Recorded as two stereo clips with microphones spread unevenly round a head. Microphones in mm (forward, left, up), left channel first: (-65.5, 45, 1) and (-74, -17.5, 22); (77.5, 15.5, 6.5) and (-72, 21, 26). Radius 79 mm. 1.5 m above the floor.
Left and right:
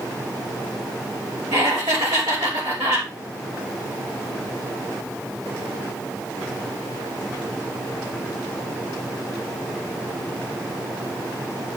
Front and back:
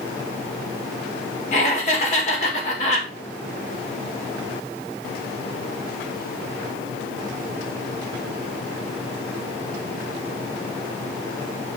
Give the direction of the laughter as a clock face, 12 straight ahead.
2 o'clock.